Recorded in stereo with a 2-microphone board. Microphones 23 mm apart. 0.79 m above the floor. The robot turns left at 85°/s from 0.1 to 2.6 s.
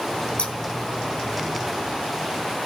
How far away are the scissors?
About 1.6 m.